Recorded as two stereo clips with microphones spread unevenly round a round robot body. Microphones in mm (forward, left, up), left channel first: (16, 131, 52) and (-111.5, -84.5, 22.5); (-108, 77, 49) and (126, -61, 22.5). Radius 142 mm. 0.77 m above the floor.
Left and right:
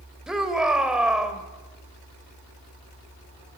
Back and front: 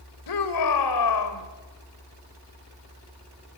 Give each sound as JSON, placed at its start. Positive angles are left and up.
{"t": 0.3, "sound": "a shout", "azimuth_deg": 155, "distance_m": 3.5}